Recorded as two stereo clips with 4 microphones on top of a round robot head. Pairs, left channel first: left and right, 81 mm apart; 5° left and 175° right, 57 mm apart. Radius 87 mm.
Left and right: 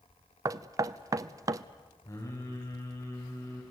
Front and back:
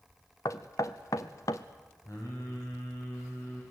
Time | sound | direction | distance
0.5 | knocking | 45° right | 0.6 m
2.0 | singing | 40° left | 6.5 m